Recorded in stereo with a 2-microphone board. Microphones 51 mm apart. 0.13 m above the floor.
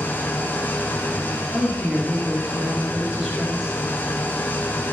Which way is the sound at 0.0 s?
35° left (ahead or behind).